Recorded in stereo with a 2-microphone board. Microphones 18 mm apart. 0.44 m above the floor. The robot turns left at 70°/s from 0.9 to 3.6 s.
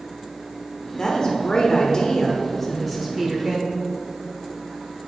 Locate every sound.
1.0 s a woman speaking: 125° left, 1.1 m; by 3.7 s 60° right, 1.1 m